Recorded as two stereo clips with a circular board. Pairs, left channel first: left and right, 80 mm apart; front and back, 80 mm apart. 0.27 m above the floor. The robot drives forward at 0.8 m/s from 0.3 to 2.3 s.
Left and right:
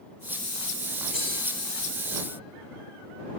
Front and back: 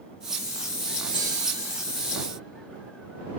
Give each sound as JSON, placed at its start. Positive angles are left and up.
{"t": 1.1, "sound": "cutlery clinking", "azimuth_deg": -15, "distance_m": 3.0}